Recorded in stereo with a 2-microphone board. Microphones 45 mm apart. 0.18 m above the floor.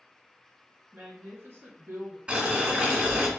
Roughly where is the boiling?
Right.